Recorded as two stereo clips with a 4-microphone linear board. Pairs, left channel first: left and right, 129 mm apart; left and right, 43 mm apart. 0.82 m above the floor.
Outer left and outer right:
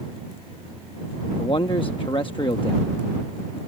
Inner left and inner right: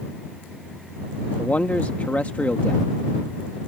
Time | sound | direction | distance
1.4 | a man speaking | 40° left (ahead or behind) | ?